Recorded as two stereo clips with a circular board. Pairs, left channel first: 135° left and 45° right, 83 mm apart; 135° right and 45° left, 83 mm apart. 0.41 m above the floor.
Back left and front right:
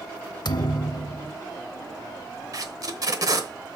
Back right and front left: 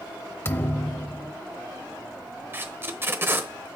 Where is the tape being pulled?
15° right, 1.0 m.